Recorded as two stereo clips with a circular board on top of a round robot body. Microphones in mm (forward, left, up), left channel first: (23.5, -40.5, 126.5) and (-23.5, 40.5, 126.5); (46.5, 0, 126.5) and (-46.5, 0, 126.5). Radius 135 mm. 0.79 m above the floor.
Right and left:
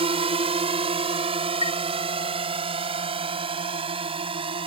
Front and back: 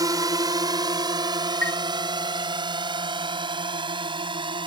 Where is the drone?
130° left; by 4.7 s 145° left.